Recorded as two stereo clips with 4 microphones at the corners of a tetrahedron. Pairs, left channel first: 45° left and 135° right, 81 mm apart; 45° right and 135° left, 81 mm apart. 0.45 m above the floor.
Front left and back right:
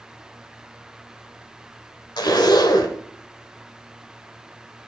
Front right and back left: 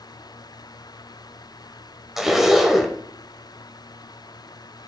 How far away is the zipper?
About 1.3 m.